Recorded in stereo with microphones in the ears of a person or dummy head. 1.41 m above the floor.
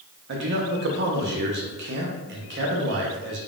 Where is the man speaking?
60° right (ahead or behind), 0.8 m.